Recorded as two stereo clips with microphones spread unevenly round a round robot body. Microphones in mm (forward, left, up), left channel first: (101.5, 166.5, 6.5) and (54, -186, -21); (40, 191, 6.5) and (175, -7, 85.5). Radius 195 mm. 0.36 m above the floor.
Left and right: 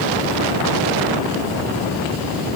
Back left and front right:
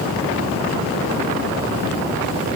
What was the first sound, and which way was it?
Only background noise.